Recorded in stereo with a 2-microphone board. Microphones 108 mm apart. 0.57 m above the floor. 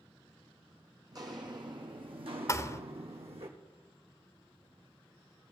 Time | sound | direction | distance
1.1 | footsteps | 40° right (ahead or behind) | 1.7 m
2.5 | a thud | 30° left (ahead or behind) | 0.6 m